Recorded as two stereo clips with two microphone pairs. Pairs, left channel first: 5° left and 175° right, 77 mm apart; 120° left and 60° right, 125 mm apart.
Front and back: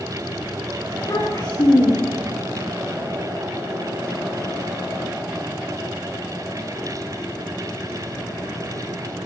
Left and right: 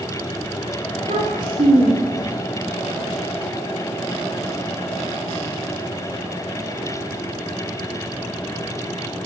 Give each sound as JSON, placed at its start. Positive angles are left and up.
{"t": 0.9, "sound": "a child speaking", "azimuth_deg": -30, "distance_m": 8.5}